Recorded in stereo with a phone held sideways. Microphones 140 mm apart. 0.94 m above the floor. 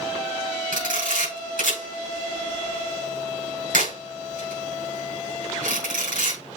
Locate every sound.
0.7 s a camera shutter: 85° right, 5 m